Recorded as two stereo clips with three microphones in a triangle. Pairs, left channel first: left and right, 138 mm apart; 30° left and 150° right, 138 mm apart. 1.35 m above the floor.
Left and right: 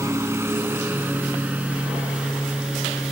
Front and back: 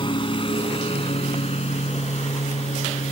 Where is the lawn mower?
20° right; by 3.1 s 5° right.